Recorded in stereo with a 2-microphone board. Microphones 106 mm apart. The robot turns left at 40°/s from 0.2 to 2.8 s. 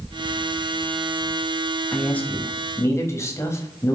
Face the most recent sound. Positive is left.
turn(degrees=130)